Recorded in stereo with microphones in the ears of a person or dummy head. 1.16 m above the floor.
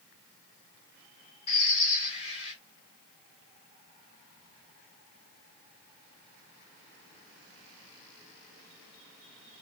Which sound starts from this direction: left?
A bird, at 1.5 s.